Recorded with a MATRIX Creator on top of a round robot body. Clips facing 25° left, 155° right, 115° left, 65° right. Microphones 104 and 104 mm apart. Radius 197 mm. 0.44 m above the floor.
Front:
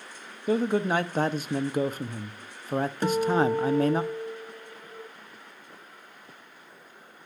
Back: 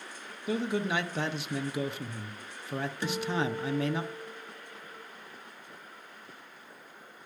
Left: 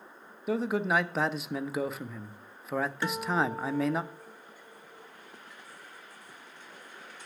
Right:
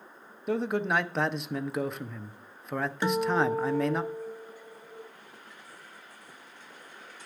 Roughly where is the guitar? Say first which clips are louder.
Front 9 dB, right 7 dB; ahead.